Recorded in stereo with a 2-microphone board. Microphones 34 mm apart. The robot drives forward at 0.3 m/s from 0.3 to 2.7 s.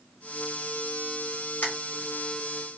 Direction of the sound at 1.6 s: 55° left (ahead or behind).